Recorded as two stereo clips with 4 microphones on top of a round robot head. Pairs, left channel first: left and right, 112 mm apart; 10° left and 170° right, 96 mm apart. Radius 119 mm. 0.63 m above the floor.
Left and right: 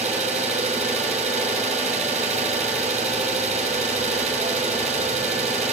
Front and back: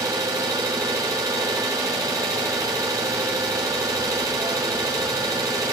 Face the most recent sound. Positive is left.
turn(degrees=-110)